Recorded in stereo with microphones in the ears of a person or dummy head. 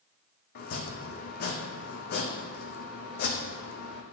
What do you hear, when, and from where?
0.6 s chopping: 55° left (ahead or behind), 1.0 m